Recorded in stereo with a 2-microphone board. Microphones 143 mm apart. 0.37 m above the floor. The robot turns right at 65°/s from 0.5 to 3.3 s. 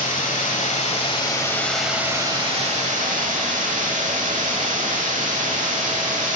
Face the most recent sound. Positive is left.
turn(degrees=-80)